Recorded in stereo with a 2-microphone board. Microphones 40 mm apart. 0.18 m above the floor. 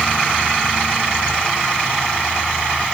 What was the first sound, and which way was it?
Only background noise.